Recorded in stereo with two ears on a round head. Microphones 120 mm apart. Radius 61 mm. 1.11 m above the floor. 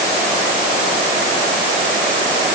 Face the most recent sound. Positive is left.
No sound to turn to.